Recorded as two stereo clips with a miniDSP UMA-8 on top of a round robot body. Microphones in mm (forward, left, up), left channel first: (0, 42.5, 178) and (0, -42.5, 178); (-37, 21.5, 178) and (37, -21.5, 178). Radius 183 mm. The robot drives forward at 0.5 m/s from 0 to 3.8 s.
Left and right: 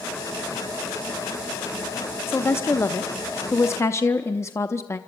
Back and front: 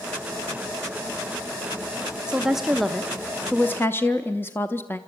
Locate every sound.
2.3 s a woman speaking: 45° left, 1.2 m; by 5.0 s 110° left, 1.1 m